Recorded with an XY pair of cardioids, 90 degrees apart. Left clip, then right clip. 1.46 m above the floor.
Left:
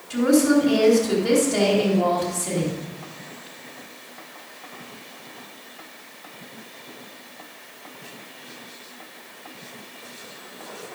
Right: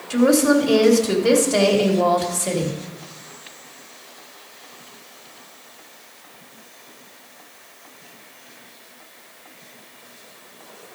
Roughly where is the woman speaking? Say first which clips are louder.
Right 2 dB; ahead right.